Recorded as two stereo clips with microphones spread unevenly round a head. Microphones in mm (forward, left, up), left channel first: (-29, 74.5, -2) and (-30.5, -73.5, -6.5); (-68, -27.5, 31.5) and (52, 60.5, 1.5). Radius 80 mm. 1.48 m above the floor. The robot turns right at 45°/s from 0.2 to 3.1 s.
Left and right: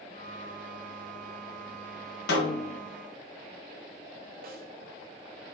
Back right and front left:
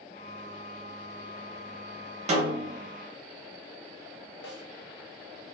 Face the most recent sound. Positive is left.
turn(degrees=-115)